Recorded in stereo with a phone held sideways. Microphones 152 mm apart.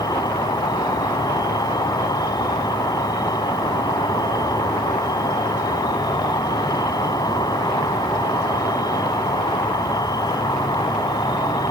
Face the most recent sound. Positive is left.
turn(degrees=30)  # may be behind; listen again after turning